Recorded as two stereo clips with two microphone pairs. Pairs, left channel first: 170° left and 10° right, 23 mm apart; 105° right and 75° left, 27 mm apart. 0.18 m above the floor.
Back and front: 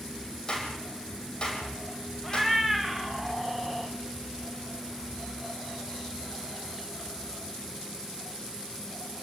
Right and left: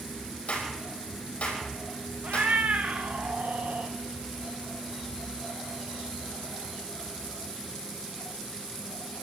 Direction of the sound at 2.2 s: 85° left.